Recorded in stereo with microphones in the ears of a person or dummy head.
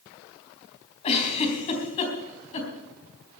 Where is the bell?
No bell in this recording.